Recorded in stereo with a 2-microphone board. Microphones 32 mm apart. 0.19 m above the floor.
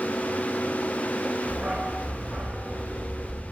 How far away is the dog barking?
About 3 m.